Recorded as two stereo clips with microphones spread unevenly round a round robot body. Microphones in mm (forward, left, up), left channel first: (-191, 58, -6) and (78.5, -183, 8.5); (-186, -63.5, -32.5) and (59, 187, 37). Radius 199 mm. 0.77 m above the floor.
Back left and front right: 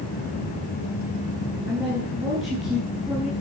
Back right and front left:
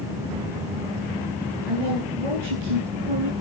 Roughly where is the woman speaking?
Ahead left.